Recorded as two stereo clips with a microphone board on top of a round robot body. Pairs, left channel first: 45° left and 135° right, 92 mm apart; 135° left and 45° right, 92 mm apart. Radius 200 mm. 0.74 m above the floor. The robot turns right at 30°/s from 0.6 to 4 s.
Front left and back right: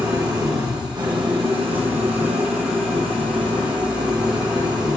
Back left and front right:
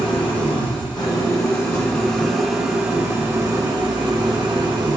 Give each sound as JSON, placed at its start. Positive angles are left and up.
{"t": 0.0, "sound": "an engine running", "azimuth_deg": 170, "distance_m": 1.6}